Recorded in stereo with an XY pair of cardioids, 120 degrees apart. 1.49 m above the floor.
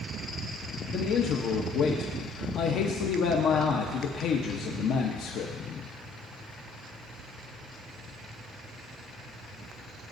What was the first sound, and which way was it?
A man speaking, 70° left.